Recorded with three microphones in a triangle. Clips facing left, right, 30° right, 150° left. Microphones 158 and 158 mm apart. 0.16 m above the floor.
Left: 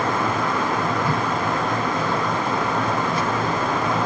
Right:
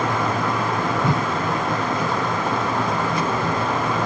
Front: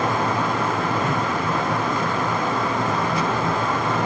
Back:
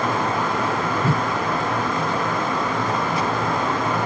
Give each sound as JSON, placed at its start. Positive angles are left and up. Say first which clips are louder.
{"t": 1.0, "sound": "a whoosh", "louder": "right 1 dB, back 1 dB", "azimuth_deg": -155}